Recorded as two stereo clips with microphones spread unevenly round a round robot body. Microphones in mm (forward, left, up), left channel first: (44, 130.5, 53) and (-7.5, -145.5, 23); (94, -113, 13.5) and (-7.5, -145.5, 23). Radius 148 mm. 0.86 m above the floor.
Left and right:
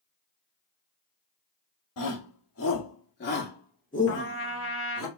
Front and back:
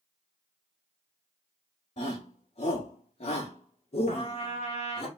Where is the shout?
55° left, 2.0 m; by 5.1 s 10° right, 3 m.